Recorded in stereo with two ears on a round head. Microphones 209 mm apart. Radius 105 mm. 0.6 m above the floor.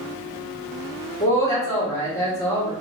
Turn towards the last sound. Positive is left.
turn(degrees=15)  # may be behind; listen again after turning